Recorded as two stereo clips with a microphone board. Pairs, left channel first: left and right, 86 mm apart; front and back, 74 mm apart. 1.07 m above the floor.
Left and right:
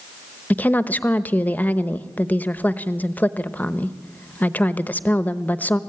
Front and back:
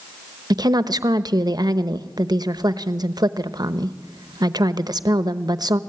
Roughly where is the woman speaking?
Behind.